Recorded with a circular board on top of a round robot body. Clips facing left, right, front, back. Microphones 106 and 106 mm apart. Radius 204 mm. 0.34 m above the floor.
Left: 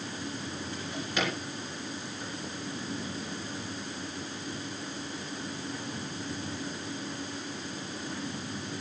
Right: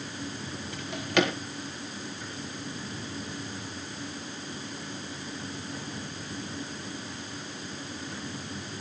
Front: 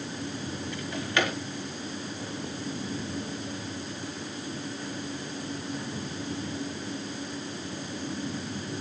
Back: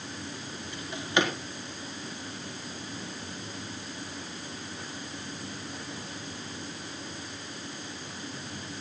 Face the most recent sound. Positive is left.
turn(degrees=-110)